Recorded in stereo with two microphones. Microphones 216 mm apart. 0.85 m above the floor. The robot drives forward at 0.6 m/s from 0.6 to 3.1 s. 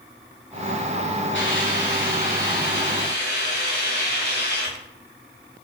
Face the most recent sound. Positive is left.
turn(degrees=55)  # may be behind; listen again after turning